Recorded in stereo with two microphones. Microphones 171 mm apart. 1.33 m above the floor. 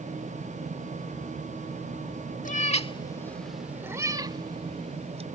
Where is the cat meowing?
50° left (ahead or behind); by 5.2 s 35° right (ahead or behind).